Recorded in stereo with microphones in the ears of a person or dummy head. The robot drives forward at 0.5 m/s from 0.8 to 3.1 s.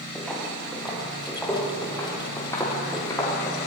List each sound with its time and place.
0.1 s footsteps: centre (ahead or behind), 7.5 m; by 3.6 s 15° left (ahead or behind), 8 m